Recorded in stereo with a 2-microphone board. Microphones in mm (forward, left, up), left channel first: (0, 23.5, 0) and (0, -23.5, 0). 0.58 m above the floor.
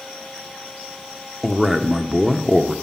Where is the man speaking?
5° right (ahead or behind), 0.9 m.